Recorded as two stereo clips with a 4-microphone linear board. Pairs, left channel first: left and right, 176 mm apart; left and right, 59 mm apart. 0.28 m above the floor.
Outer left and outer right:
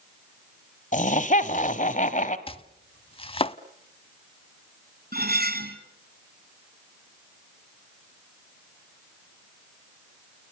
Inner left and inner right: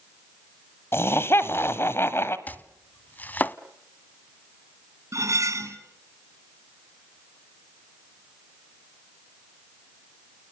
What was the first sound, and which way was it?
Laughter, 45° left (ahead or behind).